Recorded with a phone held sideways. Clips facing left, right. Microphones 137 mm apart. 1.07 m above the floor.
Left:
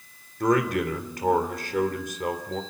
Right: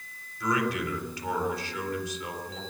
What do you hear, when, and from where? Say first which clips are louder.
0.4 s a man speaking: left 6 dB; 55° left (ahead or behind), 3.5 m